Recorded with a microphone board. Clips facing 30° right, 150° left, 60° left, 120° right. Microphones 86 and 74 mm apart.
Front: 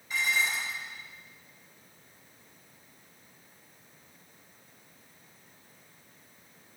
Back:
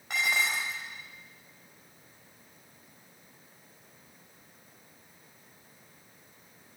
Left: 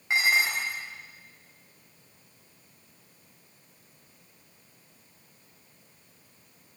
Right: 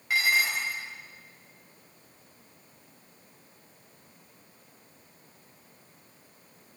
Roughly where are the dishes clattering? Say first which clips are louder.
Back 1 dB, left 1 dB; behind left.